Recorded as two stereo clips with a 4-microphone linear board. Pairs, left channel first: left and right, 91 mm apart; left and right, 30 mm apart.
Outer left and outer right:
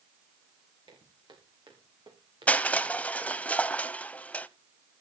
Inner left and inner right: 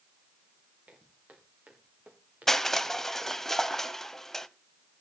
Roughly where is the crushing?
Centre.